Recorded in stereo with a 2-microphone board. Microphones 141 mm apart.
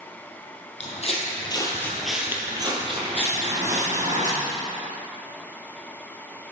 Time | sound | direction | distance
0.8 | footsteps | 55° left (ahead or behind) | 2.5 m